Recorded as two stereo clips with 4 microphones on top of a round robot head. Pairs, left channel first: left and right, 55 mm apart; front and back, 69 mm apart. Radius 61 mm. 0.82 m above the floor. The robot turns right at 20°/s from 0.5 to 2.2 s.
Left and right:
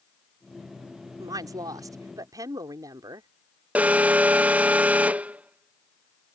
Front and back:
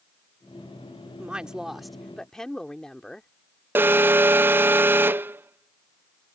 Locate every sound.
1.2 s a woman speaking: 100° right; by 3.3 s 80° right
3.8 s an alarm: 140° right